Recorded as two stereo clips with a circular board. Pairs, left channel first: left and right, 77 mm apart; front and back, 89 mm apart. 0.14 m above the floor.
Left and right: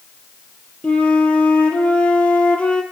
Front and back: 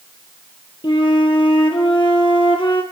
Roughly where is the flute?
Ahead.